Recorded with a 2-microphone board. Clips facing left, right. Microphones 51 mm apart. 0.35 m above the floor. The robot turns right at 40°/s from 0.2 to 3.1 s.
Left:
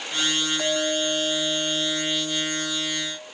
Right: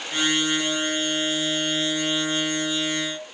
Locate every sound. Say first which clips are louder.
0.6 s a clink: left 1 dB; 135° left, 1.2 m; by 3.2 s 125° right, 1.2 m